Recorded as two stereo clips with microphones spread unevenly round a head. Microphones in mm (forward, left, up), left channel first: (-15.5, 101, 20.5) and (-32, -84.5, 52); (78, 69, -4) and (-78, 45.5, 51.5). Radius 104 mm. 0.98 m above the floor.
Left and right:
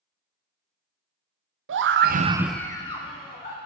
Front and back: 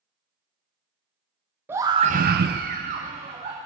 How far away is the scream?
About 0.8 m.